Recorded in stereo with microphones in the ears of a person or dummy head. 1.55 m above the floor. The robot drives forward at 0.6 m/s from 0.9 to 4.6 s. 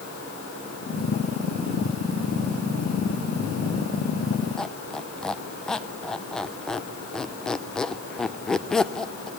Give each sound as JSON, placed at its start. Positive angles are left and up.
{"t": 4.6, "sound": "a squeak", "side_deg": 10, "distance_m": 0.6}